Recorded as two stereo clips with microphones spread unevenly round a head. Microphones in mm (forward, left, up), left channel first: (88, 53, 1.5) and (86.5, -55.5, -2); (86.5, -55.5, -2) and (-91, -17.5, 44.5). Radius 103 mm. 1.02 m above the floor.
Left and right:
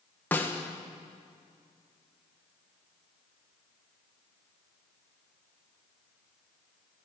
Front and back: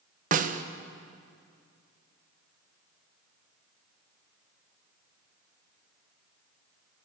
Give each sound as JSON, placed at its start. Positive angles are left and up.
{"t": 0.3, "sound": "a snare drum", "azimuth_deg": 150, "distance_m": 0.5}